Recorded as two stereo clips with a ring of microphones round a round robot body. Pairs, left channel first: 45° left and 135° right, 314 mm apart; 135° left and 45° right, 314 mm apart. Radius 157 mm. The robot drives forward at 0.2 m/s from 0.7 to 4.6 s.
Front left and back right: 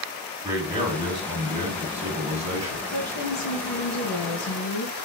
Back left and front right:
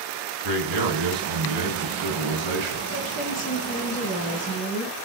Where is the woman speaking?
70° left, 3 m; by 5.0 s 75° left, 2.5 m.